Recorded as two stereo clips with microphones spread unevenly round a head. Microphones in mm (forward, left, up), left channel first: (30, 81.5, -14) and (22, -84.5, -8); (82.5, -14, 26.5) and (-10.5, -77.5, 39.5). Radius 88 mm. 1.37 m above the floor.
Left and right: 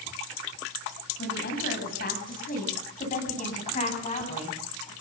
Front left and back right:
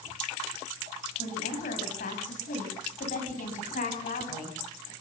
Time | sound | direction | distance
1.2 | a woman speaking | 60° left | 8.5 m